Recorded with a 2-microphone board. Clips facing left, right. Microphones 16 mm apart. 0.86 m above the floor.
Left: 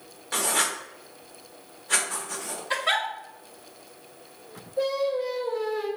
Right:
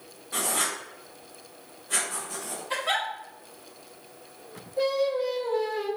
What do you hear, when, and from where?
0.3 s writing: 70° left (ahead or behind), 0.7 m
2.7 s a giggle: 30° left (ahead or behind), 1.1 m
4.8 s singing: 30° right (ahead or behind), 1.0 m